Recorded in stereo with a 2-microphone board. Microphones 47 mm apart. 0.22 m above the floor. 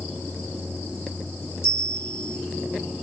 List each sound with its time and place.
1.6 s a bell: 70° left (ahead or behind), 3.5 m